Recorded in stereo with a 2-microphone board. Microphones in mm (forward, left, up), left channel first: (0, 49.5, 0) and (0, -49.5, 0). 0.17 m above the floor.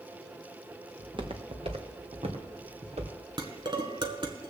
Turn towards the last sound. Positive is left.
turn(degrees=-45)  # may be behind; listen again after turning